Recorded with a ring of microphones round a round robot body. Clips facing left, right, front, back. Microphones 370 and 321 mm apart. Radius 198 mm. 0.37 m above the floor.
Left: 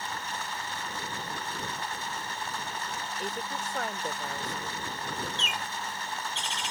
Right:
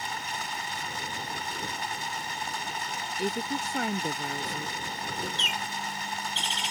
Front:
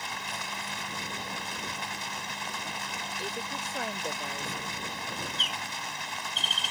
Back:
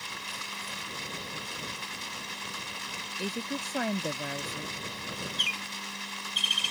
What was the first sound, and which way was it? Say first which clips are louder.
Running water: right 1 dB, front 4 dB; 40° right.